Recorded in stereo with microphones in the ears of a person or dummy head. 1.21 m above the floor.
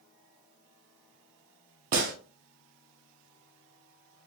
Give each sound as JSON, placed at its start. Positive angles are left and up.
{"t": 1.9, "sound": "a gunshot", "side_deg": -45, "distance_m": 0.7}